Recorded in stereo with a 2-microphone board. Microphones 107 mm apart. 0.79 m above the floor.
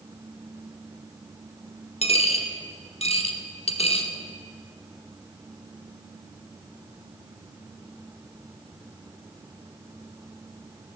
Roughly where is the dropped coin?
Left.